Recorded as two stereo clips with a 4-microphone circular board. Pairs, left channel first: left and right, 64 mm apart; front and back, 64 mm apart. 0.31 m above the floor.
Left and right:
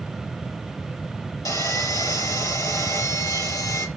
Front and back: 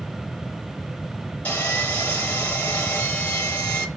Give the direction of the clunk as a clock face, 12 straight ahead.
No clunk in this recording.